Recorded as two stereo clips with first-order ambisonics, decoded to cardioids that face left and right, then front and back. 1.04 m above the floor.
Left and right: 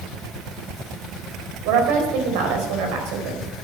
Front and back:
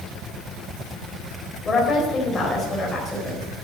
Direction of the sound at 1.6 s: 75° right.